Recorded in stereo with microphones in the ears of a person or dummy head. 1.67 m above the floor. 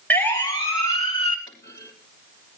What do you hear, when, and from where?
0.1 s a siren: 15° left (ahead or behind), 2 m; by 1.4 s 40° left (ahead or behind), 3.5 m
1.5 s a clunk: 20° left (ahead or behind), 3.5 m